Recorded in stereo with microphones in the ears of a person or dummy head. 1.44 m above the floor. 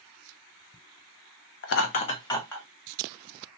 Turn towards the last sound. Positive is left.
turn(degrees=10)  # may be behind; listen again after turning